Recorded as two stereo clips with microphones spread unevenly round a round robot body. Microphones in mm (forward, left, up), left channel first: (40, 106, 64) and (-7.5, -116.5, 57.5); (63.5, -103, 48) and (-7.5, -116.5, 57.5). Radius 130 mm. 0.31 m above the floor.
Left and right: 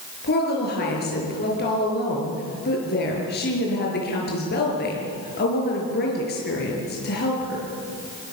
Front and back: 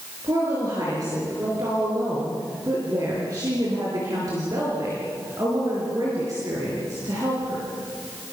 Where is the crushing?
I don't hear crushing.